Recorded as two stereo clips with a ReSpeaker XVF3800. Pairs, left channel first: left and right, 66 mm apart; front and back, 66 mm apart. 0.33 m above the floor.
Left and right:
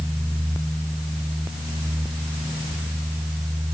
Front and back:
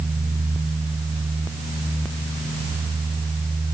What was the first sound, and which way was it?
Only background noise.